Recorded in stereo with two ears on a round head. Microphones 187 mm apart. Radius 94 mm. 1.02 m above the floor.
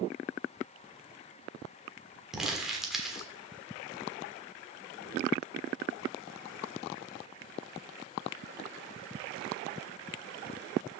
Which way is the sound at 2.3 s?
Centre (ahead or behind).